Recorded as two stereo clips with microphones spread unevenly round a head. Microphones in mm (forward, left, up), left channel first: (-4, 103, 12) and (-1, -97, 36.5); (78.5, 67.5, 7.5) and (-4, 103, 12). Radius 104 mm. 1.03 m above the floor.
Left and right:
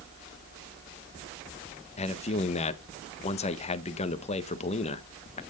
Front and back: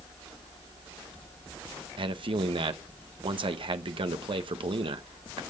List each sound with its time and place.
2.0 s a man speaking: 140° left, 1.1 m